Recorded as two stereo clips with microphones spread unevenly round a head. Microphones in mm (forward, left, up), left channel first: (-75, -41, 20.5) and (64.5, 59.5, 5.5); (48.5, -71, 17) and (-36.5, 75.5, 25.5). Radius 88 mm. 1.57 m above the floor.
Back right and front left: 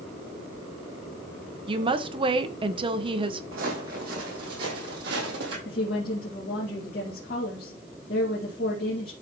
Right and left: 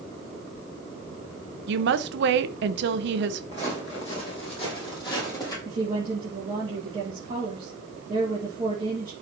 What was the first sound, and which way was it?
A woman speaking, 100° left.